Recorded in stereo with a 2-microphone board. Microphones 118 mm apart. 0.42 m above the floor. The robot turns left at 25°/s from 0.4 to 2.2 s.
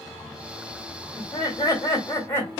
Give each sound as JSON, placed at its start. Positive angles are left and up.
{"t": 1.2, "sound": "laughter", "side_deg": 35, "distance_m": 1.4}